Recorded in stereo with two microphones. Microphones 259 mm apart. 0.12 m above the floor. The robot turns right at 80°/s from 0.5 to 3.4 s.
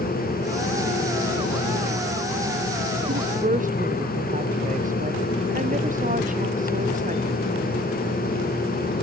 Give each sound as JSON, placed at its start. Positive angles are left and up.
{"t": 3.1, "sound": "a woman speaking", "side_deg": -55}